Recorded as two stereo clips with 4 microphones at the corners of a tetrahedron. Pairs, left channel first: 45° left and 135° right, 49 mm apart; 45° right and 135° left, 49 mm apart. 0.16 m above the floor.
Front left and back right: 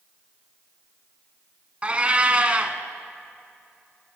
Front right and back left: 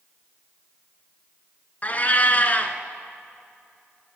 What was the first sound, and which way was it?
A cat meowing, 80° right.